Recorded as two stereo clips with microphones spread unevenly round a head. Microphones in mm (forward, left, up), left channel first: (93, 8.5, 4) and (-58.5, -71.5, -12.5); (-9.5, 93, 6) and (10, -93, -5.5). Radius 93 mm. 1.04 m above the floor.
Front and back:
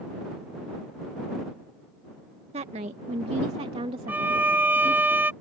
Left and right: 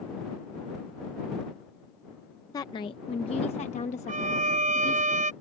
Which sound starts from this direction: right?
A violin, at 4.1 s.